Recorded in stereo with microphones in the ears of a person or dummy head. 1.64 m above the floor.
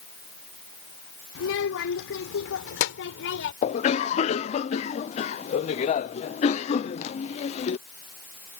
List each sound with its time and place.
1.4 s a child speaking: 75° left (ahead or behind); by 3.5 s 80° left
3.6 s a cough: 45° left (ahead or behind)